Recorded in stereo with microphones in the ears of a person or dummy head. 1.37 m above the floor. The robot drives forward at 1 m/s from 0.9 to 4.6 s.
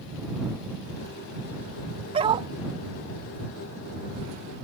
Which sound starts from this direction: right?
A dog barking, at 2.1 s.